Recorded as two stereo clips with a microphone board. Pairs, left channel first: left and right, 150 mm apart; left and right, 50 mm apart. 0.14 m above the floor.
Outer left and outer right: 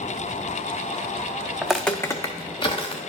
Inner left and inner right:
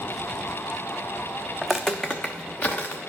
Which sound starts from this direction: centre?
Footsteps, at 1.6 s.